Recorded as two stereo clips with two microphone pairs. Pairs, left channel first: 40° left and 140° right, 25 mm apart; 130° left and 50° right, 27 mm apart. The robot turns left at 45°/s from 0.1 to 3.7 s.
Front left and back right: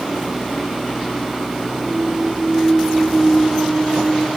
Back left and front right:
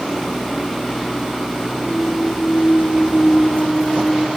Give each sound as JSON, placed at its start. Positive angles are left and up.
{"t": 1.9, "sound": "a clunk", "azimuth_deg": -170, "distance_m": 4.5}